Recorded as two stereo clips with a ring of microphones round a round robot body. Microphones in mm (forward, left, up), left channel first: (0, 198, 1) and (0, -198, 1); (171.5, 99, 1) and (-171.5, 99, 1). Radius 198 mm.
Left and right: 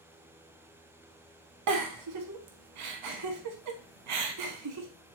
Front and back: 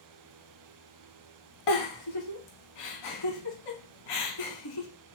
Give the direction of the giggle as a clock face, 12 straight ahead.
1 o'clock.